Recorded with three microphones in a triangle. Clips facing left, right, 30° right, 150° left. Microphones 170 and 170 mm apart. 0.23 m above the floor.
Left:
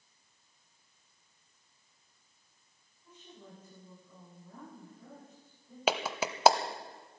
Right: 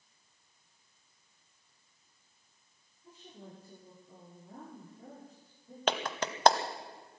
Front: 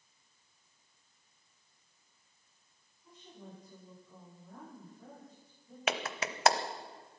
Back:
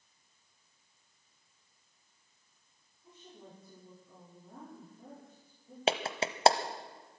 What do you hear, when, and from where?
3.0 s a woman speaking: 145° right, 9 m
5.9 s a clap: 165° left, 0.9 m